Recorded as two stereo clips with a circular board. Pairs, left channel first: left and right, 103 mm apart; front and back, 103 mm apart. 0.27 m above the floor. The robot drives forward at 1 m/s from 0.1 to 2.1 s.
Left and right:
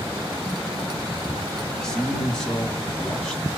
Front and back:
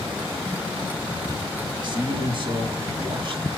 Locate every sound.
1.8 s a man speaking: 170° left, 2 m; by 3.5 s 175° left, 2.5 m